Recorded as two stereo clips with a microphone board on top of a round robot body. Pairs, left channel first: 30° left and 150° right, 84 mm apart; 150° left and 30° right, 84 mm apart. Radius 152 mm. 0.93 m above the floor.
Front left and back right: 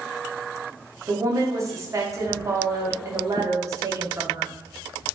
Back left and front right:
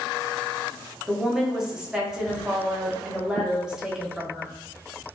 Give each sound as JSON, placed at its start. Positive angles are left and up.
{"t": 1.1, "sound": "a woman speaking", "azimuth_deg": -110, "distance_m": 0.9}